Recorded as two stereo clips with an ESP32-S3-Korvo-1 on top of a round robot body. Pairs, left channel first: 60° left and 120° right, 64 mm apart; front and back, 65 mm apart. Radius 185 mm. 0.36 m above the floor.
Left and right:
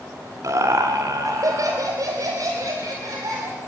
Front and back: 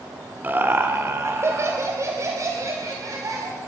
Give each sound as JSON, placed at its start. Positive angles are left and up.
{"t": 0.4, "sound": "laughter", "azimuth_deg": -125, "distance_m": 2.0}